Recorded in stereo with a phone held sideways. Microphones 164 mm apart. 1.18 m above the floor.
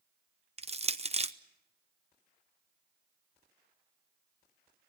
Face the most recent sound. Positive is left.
turn(degrees=-35)  # may be behind; listen again after turning